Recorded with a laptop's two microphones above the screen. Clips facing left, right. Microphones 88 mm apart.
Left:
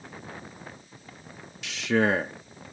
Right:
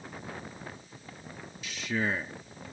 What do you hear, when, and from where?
1.6 s a man speaking: 85° left